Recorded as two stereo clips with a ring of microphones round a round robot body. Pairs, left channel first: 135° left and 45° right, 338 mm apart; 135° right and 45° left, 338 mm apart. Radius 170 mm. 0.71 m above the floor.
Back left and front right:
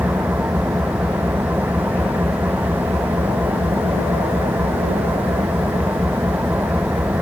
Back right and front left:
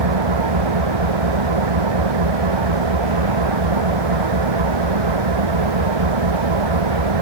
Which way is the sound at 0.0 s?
40° left.